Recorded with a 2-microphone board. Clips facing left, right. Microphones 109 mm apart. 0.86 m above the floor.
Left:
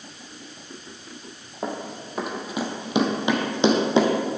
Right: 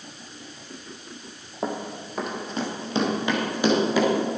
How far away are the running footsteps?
About 1.2 m.